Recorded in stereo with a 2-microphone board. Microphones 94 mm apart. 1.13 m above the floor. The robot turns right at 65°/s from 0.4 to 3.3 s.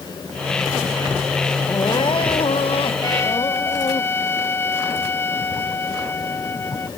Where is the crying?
30° left; by 4.0 s 135° left.